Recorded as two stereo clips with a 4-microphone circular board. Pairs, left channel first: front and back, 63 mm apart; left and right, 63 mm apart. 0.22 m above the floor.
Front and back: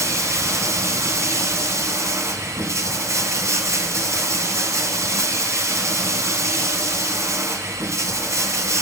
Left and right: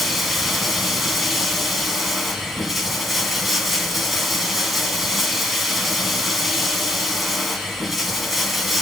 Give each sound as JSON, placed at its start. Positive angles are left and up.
{"t": 0.0, "sound": "running water", "azimuth_deg": 180, "distance_m": 1.8}